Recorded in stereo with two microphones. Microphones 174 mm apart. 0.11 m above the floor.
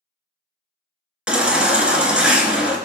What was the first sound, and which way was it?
A baby crying, 5° right (ahead or behind).